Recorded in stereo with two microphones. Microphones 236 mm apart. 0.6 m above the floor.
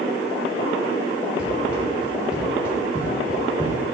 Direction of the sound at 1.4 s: 5° right (ahead or behind).